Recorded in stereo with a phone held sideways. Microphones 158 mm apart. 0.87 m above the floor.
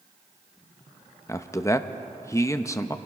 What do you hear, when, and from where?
1.3 s a man speaking: 20° left (ahead or behind), 0.8 m